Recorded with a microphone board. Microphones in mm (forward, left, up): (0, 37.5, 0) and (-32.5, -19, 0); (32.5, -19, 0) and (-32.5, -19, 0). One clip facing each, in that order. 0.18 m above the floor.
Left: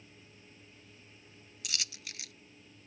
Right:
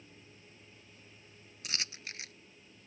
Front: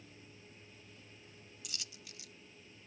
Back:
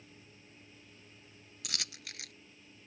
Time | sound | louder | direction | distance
1.6 | a dropped coin | right 1 dB, back 8 dB | 175° right | ?